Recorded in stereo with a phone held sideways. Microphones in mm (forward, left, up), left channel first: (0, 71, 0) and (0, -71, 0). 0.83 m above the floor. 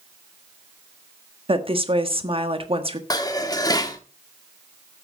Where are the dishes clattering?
25° left (ahead or behind), 1.2 m.